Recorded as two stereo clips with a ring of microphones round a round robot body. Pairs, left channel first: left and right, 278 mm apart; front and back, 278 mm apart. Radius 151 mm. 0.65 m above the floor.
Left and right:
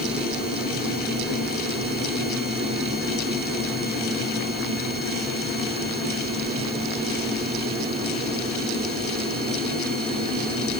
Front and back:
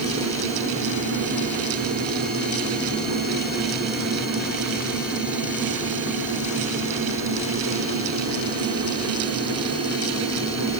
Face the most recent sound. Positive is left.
No sound to turn to.